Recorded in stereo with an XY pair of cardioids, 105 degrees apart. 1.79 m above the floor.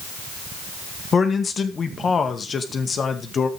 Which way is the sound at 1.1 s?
40° left.